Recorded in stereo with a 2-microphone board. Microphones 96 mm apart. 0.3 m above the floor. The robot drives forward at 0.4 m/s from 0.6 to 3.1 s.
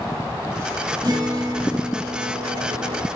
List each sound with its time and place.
1.0 s a guitar: 40° right (ahead or behind), 1.7 m; by 3.1 s 30° right (ahead or behind), 2.5 m